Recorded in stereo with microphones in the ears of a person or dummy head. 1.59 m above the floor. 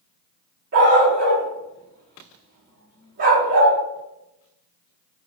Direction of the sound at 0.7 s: 50° right (ahead or behind).